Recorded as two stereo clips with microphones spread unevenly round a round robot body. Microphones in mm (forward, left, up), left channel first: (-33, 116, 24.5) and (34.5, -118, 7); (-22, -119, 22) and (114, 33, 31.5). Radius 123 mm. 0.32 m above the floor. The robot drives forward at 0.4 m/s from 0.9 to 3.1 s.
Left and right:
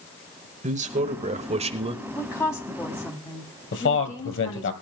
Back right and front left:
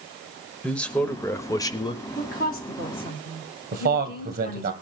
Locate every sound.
0.6 s a man speaking: 55° right, 1.0 m; by 2.0 s 100° right, 0.9 m
2.1 s a woman speaking: 175° right, 1.9 m
3.7 s a man speaking: 85° left, 2.0 m